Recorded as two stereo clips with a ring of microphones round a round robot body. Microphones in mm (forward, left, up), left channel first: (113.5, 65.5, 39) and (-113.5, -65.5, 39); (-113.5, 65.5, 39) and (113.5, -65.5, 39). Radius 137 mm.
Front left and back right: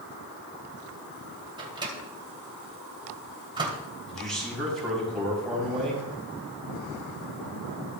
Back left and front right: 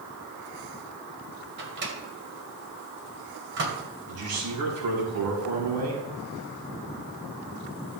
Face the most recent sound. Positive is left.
turn(degrees=-60)